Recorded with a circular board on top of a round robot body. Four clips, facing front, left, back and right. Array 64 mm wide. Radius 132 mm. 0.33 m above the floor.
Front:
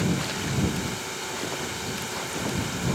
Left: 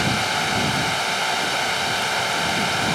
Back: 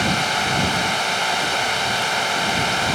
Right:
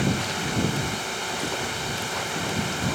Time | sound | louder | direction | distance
0.0 | a drone | left 5 dB, back 8 dB | 150° left | ?